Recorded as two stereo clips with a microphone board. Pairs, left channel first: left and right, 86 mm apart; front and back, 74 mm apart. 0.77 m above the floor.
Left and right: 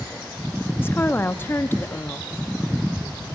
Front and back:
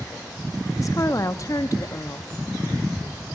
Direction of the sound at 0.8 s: 30° left.